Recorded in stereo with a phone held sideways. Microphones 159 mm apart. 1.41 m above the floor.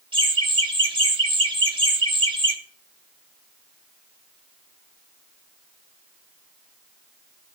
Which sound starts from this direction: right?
Laughter, at 0.1 s.